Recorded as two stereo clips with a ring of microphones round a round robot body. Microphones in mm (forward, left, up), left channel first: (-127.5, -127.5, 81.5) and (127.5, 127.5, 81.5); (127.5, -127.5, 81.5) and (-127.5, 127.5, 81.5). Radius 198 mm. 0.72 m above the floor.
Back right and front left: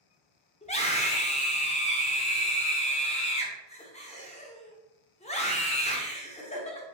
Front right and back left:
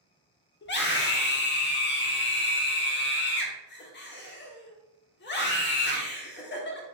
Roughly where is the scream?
Right.